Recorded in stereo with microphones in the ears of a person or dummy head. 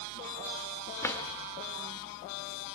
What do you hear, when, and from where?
1.0 s a drawer: 10° left (ahead or behind), 1.6 m